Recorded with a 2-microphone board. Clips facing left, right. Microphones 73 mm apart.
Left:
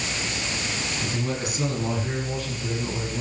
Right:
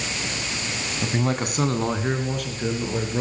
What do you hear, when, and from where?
1.0 s a man speaking: 45° right (ahead or behind), 2.5 m; by 3.2 s 65° right (ahead or behind), 5.5 m